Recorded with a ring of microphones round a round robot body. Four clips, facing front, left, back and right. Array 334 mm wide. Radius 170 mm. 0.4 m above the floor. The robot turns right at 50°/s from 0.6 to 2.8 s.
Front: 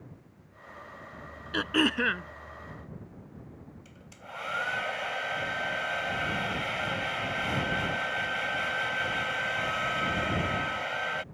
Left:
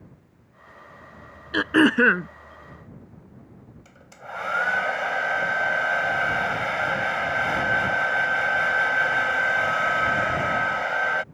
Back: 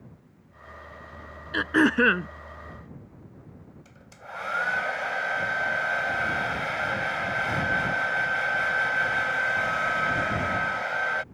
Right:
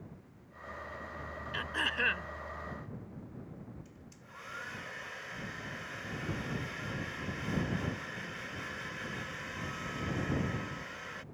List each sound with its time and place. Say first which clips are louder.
1.5 s throat clearing: left 19 dB, back 6 dB; 90° left; by 2.3 s 130° left
3.9 s a hair dryer: left 14 dB, back 7 dB; 100° left